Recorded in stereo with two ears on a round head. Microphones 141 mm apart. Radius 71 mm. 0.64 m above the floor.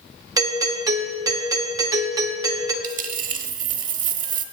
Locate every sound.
0.4 s a doorbell: 25° right (ahead or behind), 1.4 m
2.8 s a dropped coin: 55° right (ahead or behind), 0.9 m